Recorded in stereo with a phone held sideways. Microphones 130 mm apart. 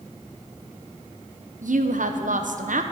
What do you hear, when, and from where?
1.6 s a woman speaking: 75° right (ahead or behind), 0.7 m